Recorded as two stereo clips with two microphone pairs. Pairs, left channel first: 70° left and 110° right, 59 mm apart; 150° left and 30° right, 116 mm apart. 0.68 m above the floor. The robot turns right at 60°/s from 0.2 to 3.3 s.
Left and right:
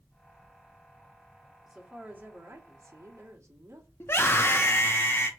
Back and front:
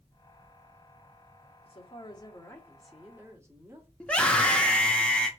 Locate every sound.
1.6 s a woman speaking: 165° left, 1.1 m; by 3.9 s 95° right, 1.1 m
4.0 s a scream: 75° left, 0.7 m